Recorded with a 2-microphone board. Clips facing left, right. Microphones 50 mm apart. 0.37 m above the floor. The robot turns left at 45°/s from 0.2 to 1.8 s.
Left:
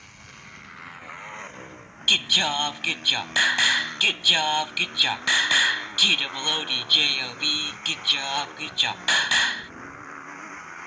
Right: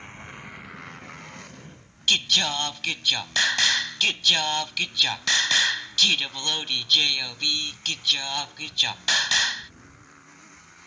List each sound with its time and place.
0.0 s a motorcycle: 150° right; by 10.9 s 135° left
2.1 s singing: 15° left (ahead or behind)